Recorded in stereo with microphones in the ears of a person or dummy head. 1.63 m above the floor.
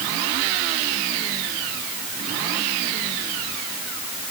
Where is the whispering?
No whispering in this recording.